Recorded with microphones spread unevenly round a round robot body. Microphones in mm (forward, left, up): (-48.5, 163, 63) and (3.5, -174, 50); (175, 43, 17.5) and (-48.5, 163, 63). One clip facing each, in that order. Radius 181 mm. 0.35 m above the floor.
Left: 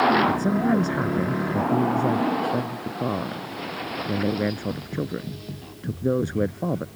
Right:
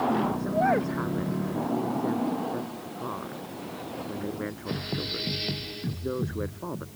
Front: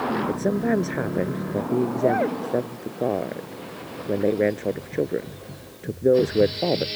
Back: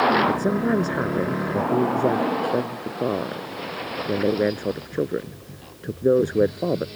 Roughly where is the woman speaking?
Left.